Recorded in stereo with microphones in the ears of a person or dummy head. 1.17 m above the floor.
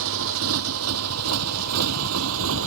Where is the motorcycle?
70° right (ahead or behind); by 2.7 s 80° right.